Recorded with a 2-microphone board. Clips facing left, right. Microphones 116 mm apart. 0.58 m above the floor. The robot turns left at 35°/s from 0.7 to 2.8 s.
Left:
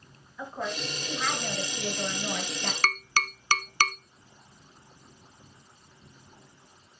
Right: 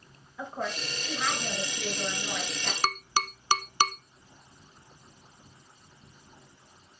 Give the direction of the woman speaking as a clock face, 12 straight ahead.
5 o'clock.